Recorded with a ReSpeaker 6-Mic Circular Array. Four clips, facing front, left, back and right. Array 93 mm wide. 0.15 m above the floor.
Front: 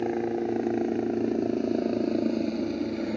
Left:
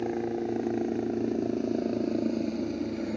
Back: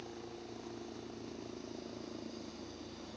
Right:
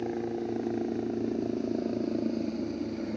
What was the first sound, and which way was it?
A helicopter, 10° left.